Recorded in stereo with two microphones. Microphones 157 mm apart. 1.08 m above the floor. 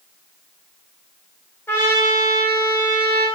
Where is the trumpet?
15° left (ahead or behind), 4.5 m.